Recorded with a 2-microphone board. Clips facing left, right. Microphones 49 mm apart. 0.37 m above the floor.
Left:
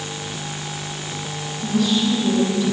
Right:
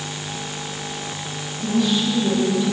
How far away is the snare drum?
I don't hear a snare drum.